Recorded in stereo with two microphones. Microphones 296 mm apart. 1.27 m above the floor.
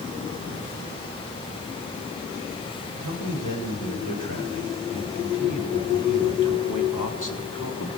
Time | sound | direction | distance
2.9 | a man speaking | 90° left | 5.5 m